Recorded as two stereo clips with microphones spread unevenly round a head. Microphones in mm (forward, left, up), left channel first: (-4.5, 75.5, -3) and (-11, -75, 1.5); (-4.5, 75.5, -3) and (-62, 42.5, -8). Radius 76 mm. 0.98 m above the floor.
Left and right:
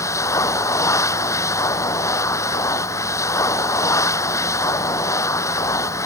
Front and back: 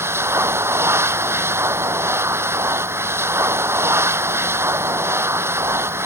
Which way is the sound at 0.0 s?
160° left.